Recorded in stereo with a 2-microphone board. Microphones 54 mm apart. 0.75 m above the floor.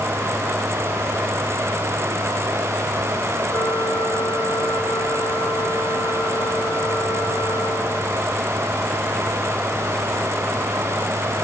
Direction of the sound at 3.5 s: 80° left.